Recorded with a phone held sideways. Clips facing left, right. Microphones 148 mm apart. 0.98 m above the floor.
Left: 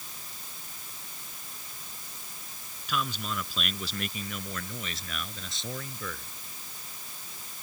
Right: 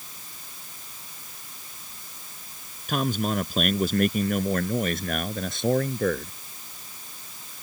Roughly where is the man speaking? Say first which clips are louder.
Right 8 dB; right.